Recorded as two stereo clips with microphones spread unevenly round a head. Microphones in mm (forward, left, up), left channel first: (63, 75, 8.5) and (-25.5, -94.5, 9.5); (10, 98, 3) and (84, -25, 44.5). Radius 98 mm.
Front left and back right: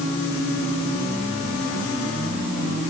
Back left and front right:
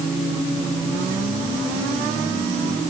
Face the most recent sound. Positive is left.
No sound to turn to.